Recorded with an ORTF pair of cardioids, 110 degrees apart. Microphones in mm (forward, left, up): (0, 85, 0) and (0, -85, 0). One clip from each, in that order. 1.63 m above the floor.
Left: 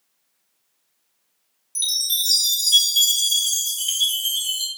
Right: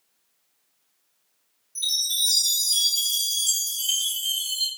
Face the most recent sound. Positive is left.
turn(degrees=60)